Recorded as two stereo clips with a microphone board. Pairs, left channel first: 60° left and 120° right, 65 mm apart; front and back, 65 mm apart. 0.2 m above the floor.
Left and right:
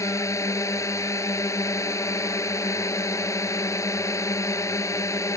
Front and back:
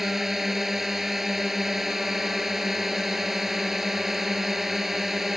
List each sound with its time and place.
0.0 s a drone: 95° left